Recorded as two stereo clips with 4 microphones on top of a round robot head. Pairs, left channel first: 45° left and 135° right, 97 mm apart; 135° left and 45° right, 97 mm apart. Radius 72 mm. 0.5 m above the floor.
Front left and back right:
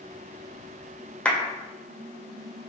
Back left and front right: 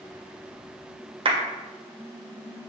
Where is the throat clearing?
No throat clearing in this recording.